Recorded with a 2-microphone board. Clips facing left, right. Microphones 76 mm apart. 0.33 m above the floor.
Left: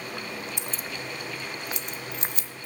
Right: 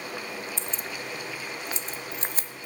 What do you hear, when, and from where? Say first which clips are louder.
0.6 s keys jangling: even; 15° left (ahead or behind), 0.5 m; by 2.7 s 45° right (ahead or behind), 1.3 m